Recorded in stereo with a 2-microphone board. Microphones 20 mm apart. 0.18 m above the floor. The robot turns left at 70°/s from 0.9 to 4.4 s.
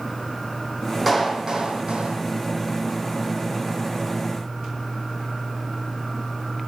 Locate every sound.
1.1 s a clap: 5° right, 5 m; by 2.2 s 85° right, 5 m